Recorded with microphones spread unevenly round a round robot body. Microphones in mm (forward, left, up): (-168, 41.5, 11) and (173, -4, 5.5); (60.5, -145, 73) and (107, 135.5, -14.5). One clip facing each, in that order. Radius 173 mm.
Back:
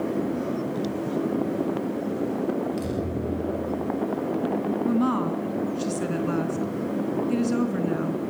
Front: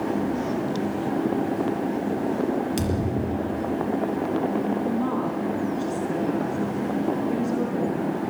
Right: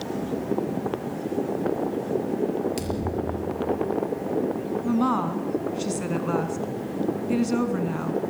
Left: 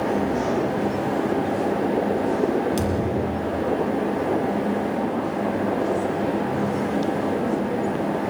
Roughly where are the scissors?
No scissors in this recording.